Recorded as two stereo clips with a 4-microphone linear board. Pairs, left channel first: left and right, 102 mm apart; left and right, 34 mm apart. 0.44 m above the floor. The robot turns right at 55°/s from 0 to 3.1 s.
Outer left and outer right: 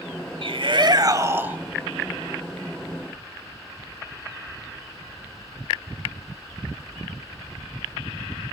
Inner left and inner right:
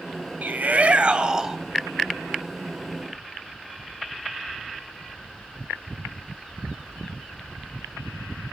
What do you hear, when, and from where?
0.4 s a shout: 80° right, 2.5 m; by 1.6 s 15° right, 2.5 m